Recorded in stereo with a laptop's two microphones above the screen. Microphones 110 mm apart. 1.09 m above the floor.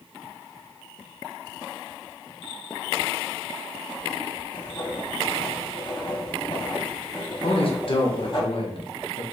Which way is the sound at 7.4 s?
55° left (ahead or behind).